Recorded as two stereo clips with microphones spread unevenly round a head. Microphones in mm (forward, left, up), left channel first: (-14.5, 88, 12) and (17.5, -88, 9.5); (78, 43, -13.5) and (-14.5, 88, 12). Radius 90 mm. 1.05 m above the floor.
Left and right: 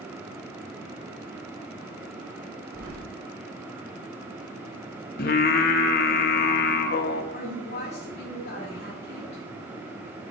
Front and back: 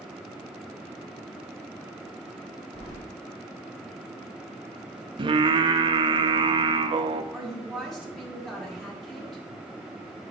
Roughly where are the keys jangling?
Ahead right.